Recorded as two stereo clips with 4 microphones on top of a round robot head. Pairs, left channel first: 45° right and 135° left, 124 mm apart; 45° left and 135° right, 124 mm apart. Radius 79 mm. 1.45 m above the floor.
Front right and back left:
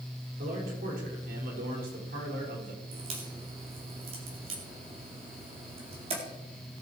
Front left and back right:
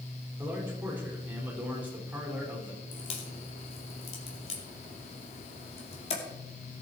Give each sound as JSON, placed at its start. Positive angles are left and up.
{"t": 0.4, "sound": "a man speaking", "azimuth_deg": 145, "distance_m": 4.5}
{"t": 2.9, "sound": "a crack", "azimuth_deg": 90, "distance_m": 2.5}